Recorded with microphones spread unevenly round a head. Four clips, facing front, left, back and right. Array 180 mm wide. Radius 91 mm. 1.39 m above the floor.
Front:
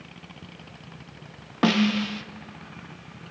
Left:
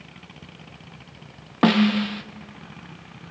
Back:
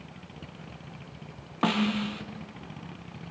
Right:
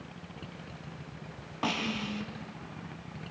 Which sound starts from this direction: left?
A snare drum, at 1.6 s.